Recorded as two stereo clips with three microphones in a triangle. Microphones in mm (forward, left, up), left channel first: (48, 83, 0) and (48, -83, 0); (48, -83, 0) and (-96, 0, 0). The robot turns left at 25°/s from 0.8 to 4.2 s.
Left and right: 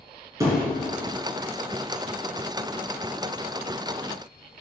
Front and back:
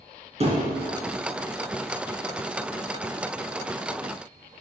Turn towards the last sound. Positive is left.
turn(degrees=115)